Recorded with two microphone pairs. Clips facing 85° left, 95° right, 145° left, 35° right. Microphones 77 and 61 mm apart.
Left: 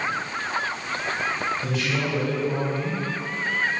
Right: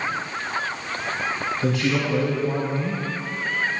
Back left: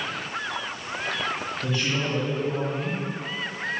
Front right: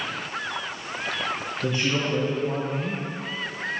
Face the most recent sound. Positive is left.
turn(degrees=-100)